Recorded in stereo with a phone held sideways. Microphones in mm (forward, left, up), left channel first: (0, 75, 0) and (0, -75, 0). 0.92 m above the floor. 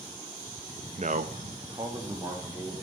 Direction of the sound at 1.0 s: 45° right (ahead or behind).